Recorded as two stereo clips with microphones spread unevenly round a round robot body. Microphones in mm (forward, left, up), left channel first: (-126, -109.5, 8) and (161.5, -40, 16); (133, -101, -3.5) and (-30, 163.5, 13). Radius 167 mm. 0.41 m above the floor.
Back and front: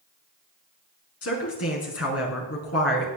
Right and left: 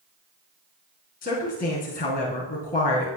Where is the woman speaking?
125° right, 4 m.